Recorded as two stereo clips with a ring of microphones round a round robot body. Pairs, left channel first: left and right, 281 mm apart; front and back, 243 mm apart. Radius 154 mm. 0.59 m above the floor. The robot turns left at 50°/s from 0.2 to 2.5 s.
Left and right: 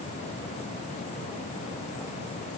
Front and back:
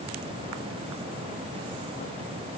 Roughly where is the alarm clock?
I don't hear an alarm clock.